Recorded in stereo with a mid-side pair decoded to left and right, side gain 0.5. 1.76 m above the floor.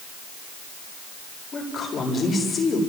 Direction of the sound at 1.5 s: 35° left.